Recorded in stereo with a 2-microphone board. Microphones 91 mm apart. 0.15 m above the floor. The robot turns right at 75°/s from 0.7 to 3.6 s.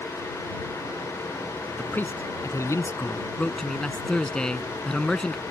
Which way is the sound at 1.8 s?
25° left.